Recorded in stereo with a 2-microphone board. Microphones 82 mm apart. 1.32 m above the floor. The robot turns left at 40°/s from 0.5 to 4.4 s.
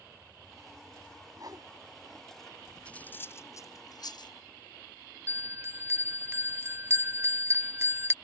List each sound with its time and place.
1.4 s a whoosh: 50° right (ahead or behind); by 1.7 s 55° right (ahead or behind)
2.9 s cutlery clinking: 15° left (ahead or behind); by 4.3 s 75° left (ahead or behind)
5.3 s a bell: 30° right (ahead or behind)